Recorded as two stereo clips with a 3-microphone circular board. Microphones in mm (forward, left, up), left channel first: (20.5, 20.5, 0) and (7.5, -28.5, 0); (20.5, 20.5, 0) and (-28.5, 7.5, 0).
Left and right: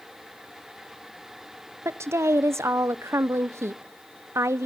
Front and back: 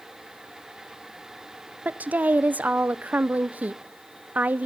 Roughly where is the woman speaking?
Right.